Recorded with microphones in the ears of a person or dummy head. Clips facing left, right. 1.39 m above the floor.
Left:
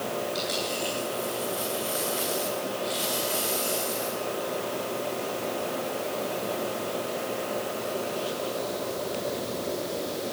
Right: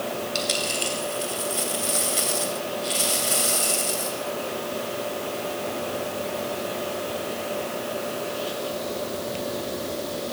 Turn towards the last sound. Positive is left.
turn(degrees=-45)  # may be behind; listen again after turning